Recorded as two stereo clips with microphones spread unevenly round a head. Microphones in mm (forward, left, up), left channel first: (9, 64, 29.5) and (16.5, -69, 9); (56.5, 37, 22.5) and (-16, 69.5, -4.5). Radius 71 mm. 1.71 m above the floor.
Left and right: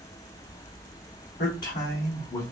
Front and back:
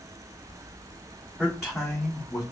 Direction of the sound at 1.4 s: 75° left.